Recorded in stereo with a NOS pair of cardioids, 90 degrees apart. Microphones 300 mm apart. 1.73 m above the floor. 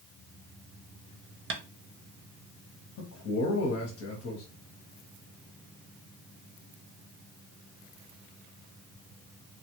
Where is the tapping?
40° right, 0.6 m.